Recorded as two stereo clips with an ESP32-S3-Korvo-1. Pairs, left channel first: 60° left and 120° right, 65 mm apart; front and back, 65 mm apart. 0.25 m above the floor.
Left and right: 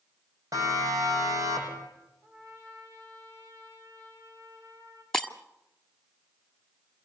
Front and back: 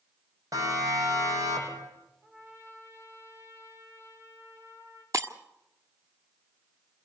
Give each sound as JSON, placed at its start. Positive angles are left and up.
{"t": 0.5, "sound": "a siren", "azimuth_deg": -150, "distance_m": 10.0}
{"t": 2.2, "sound": "a trumpet", "azimuth_deg": -135, "distance_m": 9.5}
{"t": 5.1, "sound": "breaking glass", "azimuth_deg": 140, "distance_m": 1.4}